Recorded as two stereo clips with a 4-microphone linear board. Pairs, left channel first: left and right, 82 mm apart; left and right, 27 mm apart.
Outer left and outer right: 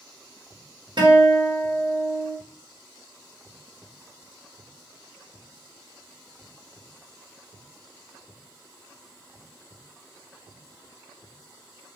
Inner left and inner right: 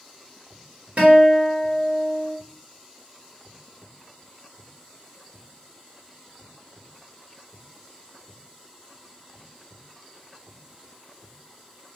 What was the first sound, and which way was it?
A guitar, 65° right (ahead or behind).